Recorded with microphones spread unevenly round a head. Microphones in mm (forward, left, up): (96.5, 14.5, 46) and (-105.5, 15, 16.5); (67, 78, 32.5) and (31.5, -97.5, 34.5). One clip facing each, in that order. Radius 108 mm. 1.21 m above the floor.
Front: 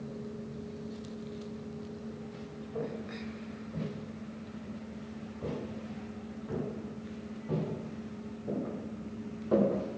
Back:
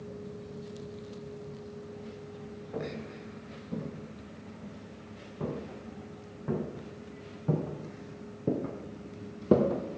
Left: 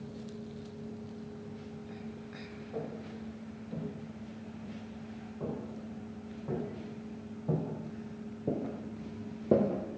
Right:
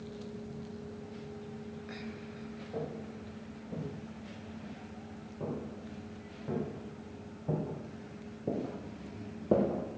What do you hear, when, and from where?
2.7 s footsteps: straight behind, 6 m; by 9.8 s 155° left, 2.0 m